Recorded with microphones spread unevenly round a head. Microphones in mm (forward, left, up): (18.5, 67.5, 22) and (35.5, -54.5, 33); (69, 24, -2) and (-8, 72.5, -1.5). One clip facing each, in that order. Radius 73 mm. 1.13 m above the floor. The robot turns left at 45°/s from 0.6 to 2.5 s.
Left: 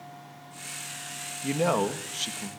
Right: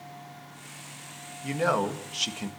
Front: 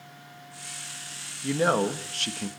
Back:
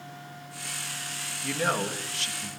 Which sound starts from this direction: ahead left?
A man speaking, at 1.4 s.